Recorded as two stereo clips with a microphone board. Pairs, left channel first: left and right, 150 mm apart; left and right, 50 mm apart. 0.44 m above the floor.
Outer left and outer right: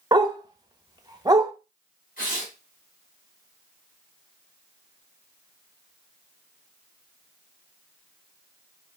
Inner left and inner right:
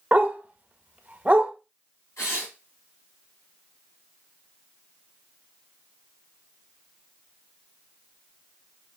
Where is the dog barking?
25° right (ahead or behind), 0.5 m.